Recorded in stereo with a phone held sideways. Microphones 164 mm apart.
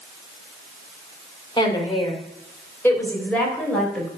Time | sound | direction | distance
1.6 | a woman speaking | 30° left (ahead or behind) | 2.5 m